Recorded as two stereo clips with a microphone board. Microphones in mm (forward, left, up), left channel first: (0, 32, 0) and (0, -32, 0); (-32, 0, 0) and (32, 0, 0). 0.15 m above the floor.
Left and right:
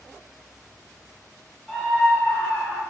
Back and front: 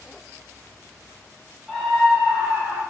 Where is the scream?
135° left, 1.1 m; by 2.8 s 50° left, 1.4 m.